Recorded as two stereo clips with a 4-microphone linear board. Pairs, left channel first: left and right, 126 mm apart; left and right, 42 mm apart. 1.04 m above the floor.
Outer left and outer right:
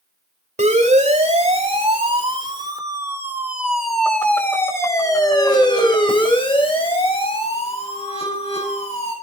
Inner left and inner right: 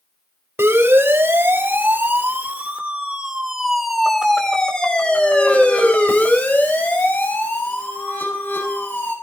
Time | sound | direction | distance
0.6 | a siren | 70° right (ahead or behind) | 4 m